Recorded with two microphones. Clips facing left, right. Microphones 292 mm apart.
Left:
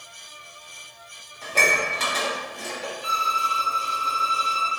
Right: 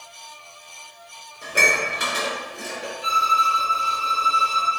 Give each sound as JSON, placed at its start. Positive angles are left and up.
{"t": 1.4, "sound": "dishes clattering", "side_deg": -15, "distance_m": 0.7}
{"t": 3.0, "sound": "a violin", "side_deg": -5, "distance_m": 1.0}